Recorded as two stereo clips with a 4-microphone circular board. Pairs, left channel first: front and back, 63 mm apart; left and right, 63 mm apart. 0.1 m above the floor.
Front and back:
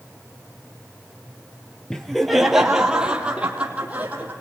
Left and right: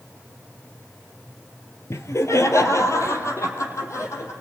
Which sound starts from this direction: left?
Laughter, at 1.9 s.